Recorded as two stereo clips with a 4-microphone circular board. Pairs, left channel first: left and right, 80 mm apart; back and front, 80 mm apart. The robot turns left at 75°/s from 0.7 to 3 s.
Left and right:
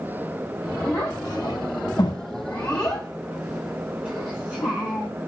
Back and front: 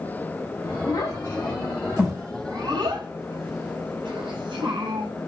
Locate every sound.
0.9 s a child speaking: 165° left, 4.5 m; by 5.1 s 5° left, 4.5 m